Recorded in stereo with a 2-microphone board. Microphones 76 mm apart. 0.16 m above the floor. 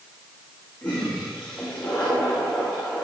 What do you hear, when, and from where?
0.8 s a toilet flushing: 20° left (ahead or behind), 10 m